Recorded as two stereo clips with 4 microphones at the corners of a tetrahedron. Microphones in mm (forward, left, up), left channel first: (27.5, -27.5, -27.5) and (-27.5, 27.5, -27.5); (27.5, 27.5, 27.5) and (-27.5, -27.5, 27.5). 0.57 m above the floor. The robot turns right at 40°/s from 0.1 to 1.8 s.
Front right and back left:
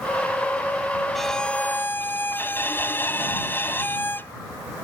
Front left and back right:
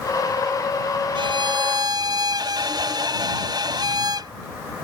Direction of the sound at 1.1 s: 135° right.